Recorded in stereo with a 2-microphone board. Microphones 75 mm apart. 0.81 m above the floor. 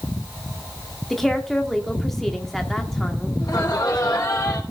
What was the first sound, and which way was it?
A woman speaking, 5° left (ahead or behind).